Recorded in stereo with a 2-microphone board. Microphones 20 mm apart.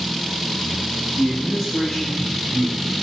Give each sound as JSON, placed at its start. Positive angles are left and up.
{"t": 1.2, "sound": "a man speaking", "side_deg": 5, "distance_m": 5.0}